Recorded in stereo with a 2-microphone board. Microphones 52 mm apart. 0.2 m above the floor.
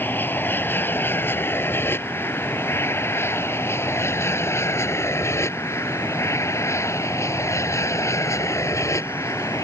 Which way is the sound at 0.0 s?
40° left (ahead or behind).